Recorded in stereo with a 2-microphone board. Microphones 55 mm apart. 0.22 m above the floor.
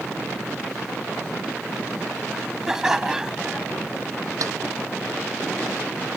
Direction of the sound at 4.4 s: 80° right.